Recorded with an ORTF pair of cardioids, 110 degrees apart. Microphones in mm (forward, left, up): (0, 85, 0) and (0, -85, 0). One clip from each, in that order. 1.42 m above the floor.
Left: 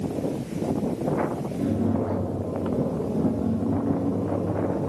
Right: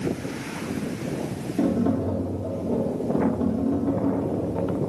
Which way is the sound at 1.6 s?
40° right.